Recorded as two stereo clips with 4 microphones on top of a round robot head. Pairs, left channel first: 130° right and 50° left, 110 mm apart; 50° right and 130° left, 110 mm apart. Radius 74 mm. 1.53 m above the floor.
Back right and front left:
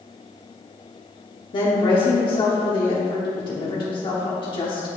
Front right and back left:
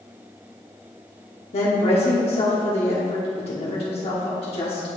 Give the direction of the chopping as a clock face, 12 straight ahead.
I don't hear chopping.